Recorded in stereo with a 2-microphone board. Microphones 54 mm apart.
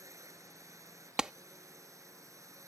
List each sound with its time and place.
0.0 s a drone: 70° right (ahead or behind)
1.2 s a clap: 15° right (ahead or behind)